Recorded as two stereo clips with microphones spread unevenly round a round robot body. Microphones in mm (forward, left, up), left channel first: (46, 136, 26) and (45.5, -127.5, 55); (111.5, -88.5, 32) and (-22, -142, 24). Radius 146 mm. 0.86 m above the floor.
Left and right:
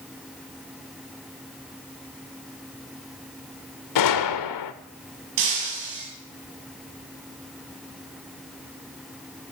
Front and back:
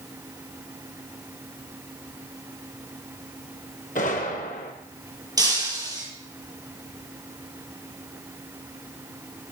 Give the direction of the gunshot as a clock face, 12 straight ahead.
9 o'clock.